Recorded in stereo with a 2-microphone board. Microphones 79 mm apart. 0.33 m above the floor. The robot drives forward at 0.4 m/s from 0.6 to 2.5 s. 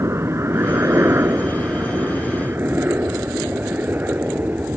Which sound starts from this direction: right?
A helicopter, at 0.0 s.